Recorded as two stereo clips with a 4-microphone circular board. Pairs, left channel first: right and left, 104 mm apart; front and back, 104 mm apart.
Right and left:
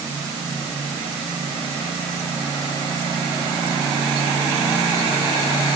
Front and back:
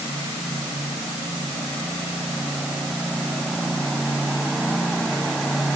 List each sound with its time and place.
Only background noise.